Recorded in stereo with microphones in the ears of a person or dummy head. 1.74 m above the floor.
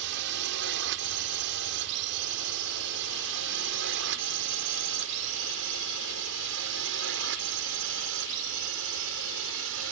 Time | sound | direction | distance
0.0 | a drone | 65° right (ahead or behind) | ?